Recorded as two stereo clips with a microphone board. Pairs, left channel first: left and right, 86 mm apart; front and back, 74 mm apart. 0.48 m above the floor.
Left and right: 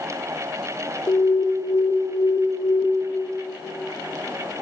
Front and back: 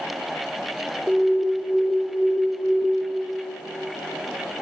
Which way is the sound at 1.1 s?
105° left.